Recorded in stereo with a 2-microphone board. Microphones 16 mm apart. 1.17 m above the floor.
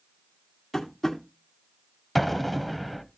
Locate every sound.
0.7 s tapping: 20° left (ahead or behind), 1.7 m
2.1 s an explosion: 5° right (ahead or behind), 0.8 m